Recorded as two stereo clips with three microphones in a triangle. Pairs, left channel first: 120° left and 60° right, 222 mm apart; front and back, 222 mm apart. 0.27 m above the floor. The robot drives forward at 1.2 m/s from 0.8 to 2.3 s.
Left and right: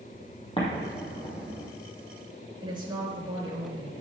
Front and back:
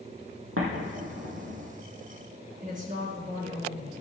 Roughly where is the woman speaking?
Behind right.